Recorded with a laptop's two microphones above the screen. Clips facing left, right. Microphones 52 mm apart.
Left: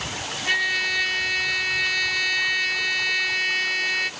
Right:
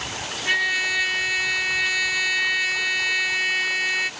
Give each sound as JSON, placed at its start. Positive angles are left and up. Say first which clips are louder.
{"t": 0.5, "sound": "a trumpet", "louder": "right 1 dB", "side_deg": -5}